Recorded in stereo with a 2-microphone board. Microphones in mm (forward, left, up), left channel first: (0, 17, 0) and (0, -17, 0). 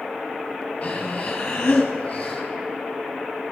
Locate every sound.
0.8 s breathing: 35° left (ahead or behind), 1.8 m